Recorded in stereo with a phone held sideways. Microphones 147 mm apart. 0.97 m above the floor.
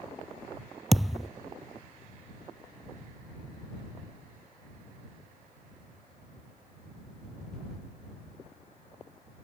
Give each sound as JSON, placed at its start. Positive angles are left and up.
{"t": 0.9, "sound": "a thud", "side_deg": 0}